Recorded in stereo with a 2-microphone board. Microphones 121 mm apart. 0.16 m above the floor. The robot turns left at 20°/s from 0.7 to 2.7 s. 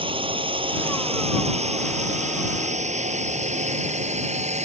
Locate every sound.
0.0 s a drone: 45° right (ahead or behind); by 4.7 s 65° right (ahead or behind)